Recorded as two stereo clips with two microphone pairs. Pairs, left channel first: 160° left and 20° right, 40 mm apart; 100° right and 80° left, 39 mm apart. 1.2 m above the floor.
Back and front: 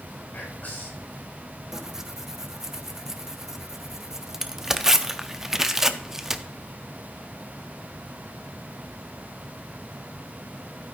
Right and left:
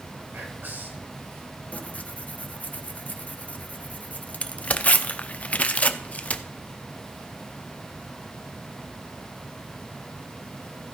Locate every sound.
0.3 s whispering: 110° left, 6.5 m
1.7 s tearing paper: 95° right, 0.7 m